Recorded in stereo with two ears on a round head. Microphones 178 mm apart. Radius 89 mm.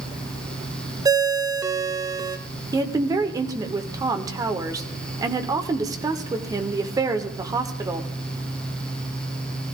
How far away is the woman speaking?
About 1.2 m.